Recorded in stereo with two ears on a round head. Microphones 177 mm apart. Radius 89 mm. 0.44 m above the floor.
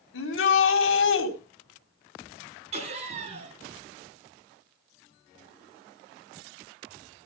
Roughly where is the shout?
Left.